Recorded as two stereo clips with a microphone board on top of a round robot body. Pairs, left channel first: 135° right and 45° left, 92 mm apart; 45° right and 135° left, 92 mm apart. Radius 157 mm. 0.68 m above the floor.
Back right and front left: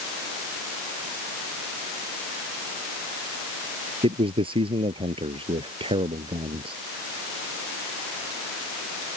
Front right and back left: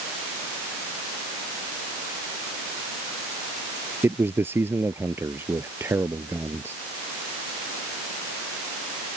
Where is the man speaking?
65° left.